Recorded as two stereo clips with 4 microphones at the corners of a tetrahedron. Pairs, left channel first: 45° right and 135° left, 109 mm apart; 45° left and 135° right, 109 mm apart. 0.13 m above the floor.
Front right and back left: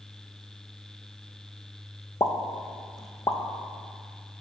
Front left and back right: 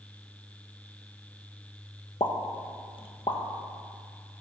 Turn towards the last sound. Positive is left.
turn(degrees=10)